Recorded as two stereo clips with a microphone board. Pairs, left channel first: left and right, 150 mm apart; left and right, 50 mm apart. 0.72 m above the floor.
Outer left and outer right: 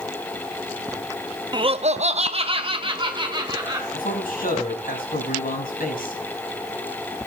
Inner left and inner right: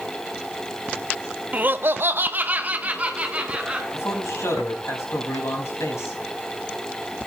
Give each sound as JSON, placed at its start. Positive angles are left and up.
{"t": 1.5, "sound": "laughter", "side_deg": -30, "distance_m": 0.7}
{"t": 3.9, "sound": "a man speaking", "side_deg": 75, "distance_m": 5.5}